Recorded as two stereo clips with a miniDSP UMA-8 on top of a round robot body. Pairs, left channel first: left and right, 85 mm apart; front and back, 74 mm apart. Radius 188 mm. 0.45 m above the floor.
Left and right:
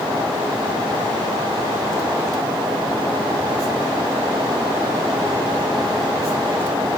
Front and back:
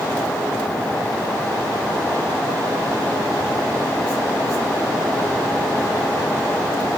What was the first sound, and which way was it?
Only background noise.